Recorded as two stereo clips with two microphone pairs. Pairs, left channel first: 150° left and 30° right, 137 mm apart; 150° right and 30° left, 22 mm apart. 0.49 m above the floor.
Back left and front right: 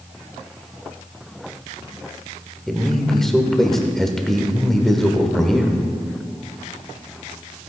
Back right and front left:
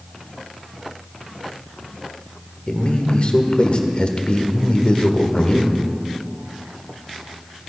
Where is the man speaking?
125° right, 1.1 m.